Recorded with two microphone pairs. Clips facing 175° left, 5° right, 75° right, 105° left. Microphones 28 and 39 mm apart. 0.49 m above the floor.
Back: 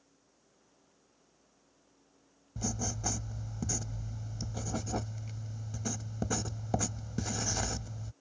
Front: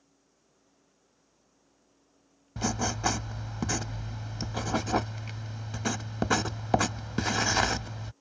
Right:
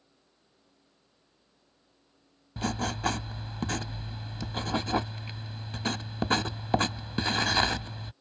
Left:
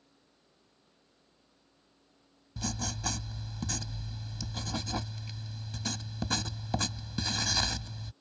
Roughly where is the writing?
Ahead right.